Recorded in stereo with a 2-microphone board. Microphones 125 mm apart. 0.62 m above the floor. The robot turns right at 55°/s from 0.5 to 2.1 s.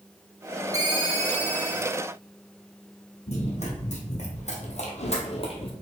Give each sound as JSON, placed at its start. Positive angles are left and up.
{"t": 0.7, "sound": "a ringtone", "azimuth_deg": -150, "distance_m": 0.8}
{"t": 3.3, "sound": "running footsteps", "side_deg": 65, "distance_m": 1.7}